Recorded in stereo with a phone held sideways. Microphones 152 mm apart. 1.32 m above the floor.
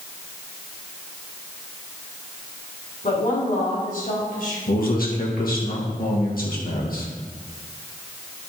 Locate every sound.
3.0 s a woman speaking: 60° left (ahead or behind), 3.5 m; by 4.6 s 70° left (ahead or behind), 4 m
4.7 s a man speaking: 70° left (ahead or behind), 2 m